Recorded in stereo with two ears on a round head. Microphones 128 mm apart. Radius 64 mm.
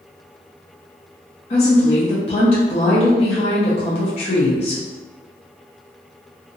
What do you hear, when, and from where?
1.5 s a woman speaking: 40° left (ahead or behind), 0.9 m